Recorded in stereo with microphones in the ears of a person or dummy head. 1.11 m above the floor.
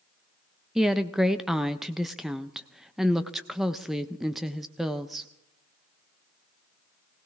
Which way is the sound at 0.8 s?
5° right (ahead or behind).